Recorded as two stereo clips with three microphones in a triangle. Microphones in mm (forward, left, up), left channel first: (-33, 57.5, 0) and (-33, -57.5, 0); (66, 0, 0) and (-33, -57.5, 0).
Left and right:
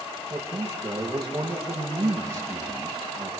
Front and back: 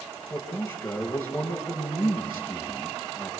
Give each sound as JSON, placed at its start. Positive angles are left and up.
{"t": 0.3, "sound": "a man speaking", "azimuth_deg": -45, "distance_m": 7.5}